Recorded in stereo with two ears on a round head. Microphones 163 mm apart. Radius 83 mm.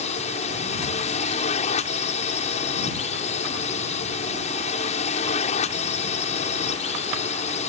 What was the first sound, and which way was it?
A drone, 40° left (ahead or behind).